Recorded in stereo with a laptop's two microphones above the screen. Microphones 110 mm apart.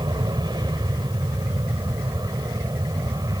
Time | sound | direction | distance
0.0 | an aircraft | 40° right (ahead or behind) | ?